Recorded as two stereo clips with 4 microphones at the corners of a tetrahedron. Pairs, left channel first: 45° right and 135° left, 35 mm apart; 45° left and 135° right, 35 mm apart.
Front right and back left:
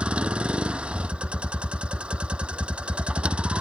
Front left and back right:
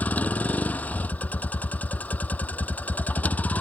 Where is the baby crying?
No baby crying in this recording.